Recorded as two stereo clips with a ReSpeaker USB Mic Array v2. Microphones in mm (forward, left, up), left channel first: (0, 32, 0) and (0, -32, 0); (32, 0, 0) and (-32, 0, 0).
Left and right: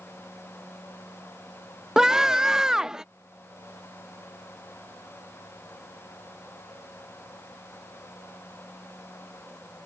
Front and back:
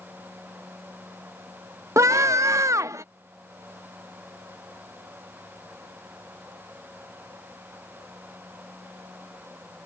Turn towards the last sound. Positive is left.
turn(degrees=-170)